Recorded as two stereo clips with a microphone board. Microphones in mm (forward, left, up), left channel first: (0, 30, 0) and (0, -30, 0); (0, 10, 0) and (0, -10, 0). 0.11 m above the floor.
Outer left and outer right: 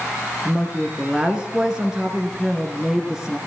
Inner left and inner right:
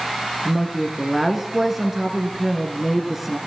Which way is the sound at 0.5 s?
10° right (ahead or behind).